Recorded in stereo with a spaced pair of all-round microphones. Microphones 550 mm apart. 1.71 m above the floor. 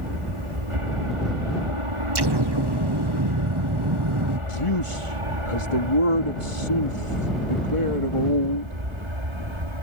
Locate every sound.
0.0 s an aircraft: 75° right (ahead or behind); by 9.8 s 60° right (ahead or behind)
2.1 s an explosion: 50° right (ahead or behind)
4.5 s a man speaking: 70° left (ahead or behind)